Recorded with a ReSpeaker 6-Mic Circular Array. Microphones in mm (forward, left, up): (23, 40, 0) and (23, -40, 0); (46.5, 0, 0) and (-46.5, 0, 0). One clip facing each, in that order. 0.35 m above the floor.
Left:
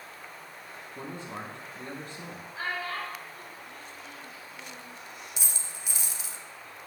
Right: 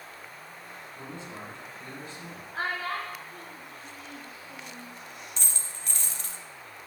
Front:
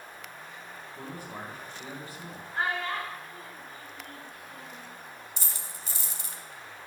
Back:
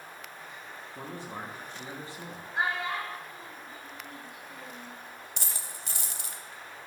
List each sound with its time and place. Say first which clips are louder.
0.9 s a man speaking: left 3 dB, back 1 dB; 120° left, 3 m
2.5 s a child speaking: right 2 dB, even; 105° right, 4 m
5.4 s a dropped coin: even, back 1 dB; 170° left, 0.8 m